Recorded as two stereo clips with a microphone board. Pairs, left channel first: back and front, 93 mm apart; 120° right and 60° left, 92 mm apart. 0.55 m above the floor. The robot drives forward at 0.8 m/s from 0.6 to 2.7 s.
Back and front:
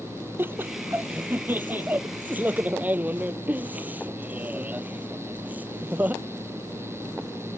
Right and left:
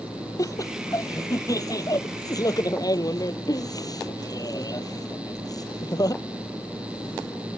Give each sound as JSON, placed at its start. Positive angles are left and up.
{"t": 0.4, "sound": "laughter", "azimuth_deg": -65}